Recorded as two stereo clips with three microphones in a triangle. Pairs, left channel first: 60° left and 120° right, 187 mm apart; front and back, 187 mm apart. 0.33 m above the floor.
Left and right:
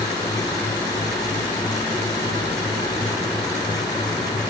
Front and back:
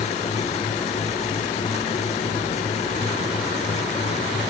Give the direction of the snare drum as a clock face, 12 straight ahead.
I don't hear a snare drum.